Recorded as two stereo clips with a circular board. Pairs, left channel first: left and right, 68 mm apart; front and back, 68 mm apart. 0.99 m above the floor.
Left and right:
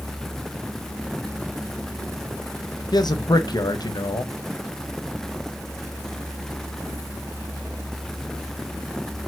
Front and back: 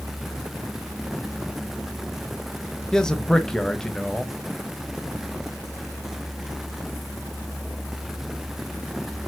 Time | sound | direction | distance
2.9 | a man speaking | 80° left | 0.5 m